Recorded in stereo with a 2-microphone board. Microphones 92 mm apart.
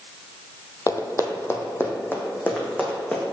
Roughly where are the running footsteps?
Left.